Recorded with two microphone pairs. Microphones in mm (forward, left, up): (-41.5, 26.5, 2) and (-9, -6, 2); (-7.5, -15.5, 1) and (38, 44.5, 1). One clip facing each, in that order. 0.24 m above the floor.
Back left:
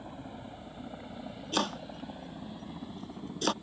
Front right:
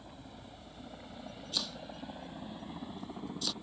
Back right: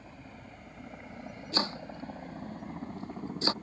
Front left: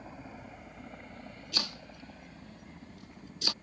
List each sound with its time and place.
0.0 s a helicopter: 100° left; by 3.6 s 125° right
1.5 s chopping: 175° left